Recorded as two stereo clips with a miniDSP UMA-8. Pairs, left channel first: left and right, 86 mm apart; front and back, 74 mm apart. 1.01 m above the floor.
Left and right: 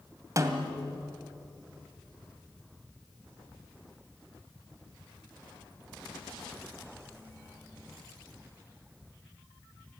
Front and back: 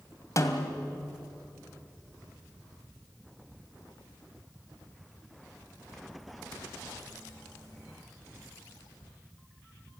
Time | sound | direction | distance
0.4 | a snare drum | 40° right | 2.0 m